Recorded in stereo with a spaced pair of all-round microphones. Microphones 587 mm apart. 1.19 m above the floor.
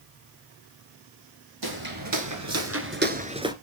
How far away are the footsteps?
About 1.5 m.